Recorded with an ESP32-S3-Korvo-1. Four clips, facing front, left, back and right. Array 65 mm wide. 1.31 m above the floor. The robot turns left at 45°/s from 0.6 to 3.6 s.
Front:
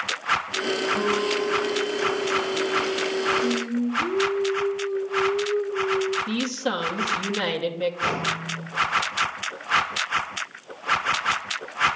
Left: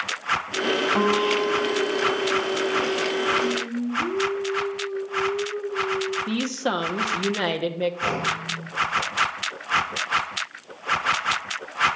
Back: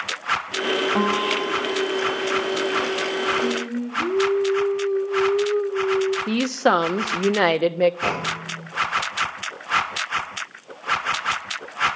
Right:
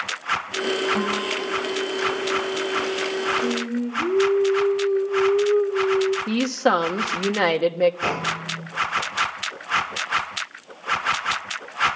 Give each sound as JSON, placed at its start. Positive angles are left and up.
{"t": 0.9, "sound": "a guitar", "azimuth_deg": 170, "distance_m": 1.8}
{"t": 3.4, "sound": "singing", "azimuth_deg": -115, "distance_m": 1.5}
{"t": 6.3, "sound": "a woman speaking", "azimuth_deg": -155, "distance_m": 1.3}
{"t": 8.0, "sound": "a clunk", "azimuth_deg": -160, "distance_m": 7.0}